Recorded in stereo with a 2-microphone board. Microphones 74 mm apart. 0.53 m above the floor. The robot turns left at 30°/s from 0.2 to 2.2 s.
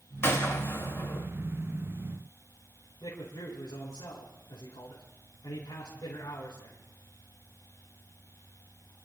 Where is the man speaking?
75° left (ahead or behind), 4.5 m.